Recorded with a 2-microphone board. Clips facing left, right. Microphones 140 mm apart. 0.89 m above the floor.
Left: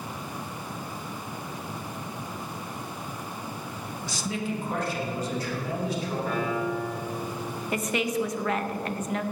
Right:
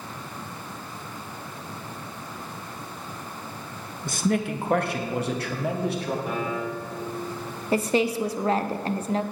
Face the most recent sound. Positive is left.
turn(degrees=-30)  # may be behind; listen again after turning